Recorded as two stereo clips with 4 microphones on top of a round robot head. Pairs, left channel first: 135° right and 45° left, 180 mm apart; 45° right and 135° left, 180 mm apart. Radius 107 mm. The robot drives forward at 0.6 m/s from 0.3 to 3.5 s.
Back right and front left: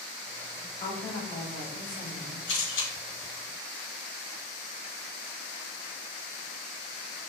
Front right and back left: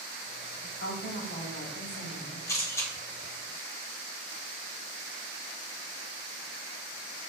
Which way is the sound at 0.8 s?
70° right.